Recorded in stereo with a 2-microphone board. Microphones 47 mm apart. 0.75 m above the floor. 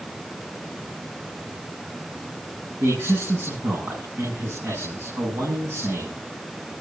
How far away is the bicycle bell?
I don't hear a bicycle bell.